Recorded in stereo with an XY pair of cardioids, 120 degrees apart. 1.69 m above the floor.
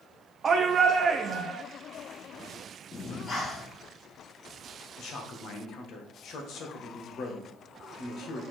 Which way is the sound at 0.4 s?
35° right.